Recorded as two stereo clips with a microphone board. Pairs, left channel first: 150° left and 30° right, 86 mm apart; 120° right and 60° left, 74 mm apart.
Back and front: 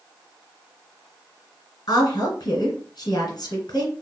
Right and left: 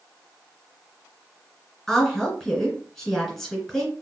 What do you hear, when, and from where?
1.9 s a woman speaking: 160° left, 2.5 m